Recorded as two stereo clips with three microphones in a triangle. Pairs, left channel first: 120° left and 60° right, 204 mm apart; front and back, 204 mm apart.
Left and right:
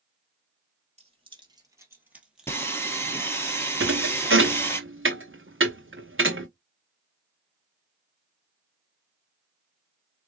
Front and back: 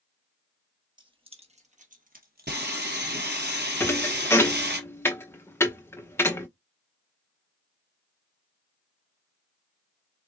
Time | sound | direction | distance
1.0 | keys jangling | 115° right | 1.8 m
2.5 | sawing | 165° right | 1.4 m
3.8 | a thud | 80° right | 1.1 m